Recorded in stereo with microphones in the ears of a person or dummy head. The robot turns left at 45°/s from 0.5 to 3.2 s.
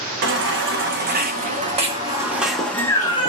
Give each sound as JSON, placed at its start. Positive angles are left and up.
{"t": 0.2, "sound": "a baby crying", "azimuth_deg": -85, "distance_m": 0.8}